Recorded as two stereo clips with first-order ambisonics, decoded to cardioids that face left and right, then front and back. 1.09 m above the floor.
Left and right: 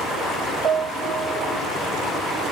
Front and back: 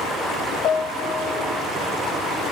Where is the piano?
30° right, 1.2 m.